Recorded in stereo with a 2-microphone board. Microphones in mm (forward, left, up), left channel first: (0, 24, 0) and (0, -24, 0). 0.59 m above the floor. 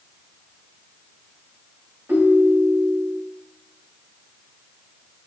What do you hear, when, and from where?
2.1 s a ringtone: 55° right (ahead or behind), 2 m